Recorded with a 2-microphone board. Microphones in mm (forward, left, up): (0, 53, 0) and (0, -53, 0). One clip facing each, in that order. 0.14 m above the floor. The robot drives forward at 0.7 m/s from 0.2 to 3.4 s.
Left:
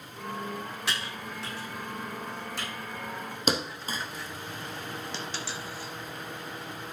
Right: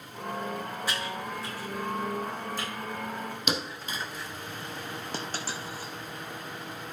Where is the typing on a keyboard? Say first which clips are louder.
Right 2 dB; 75° left (ahead or behind), 4.5 m; by 2.7 s 65° left (ahead or behind), 5 m.